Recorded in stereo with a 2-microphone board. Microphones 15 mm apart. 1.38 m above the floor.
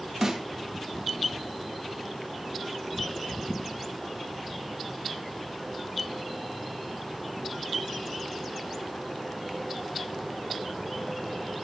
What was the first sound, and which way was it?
A snare drum, 20° right (ahead or behind).